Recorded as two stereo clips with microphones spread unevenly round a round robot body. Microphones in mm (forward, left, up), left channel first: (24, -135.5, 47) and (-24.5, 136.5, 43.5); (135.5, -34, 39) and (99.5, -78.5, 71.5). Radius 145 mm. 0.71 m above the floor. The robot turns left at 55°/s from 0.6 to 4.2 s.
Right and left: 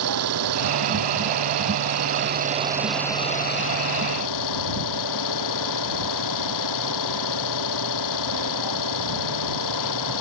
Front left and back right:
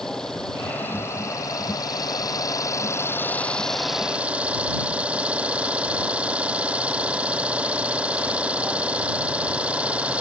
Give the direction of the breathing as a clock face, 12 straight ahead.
I don't hear breathing.